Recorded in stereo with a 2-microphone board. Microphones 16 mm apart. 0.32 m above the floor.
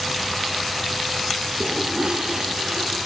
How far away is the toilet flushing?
About 5 m.